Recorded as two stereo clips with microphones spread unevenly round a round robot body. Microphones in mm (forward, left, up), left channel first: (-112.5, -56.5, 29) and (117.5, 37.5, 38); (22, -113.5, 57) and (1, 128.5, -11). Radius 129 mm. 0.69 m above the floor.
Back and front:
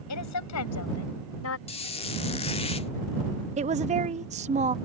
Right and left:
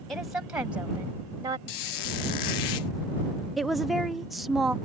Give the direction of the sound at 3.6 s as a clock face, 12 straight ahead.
11 o'clock.